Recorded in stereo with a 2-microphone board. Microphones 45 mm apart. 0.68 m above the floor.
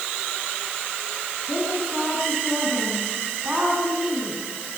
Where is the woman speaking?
35° right (ahead or behind), 6 m.